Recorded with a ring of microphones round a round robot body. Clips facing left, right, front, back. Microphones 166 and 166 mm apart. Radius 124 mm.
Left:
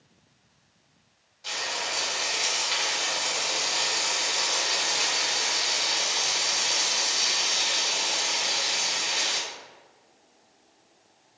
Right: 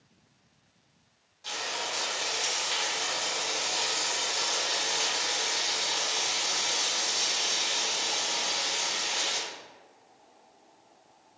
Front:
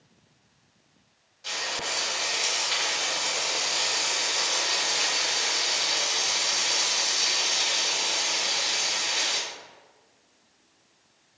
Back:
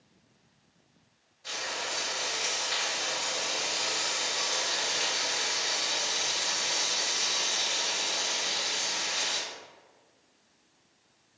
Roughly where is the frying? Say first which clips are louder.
Left 1 dB, front 3 dB; ahead.